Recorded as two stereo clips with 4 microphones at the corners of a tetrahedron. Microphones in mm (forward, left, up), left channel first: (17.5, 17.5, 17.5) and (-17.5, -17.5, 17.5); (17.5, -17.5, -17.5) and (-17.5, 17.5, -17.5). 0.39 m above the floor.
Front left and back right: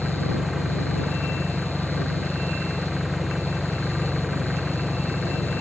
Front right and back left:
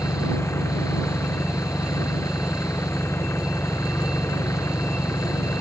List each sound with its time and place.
0.0 s an engine running: 45° right